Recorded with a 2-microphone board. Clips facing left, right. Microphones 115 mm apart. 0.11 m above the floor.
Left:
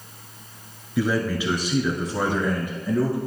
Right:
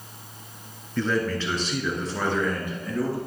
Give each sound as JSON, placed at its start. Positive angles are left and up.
{"t": 1.0, "sound": "a man speaking", "side_deg": 10, "distance_m": 1.3}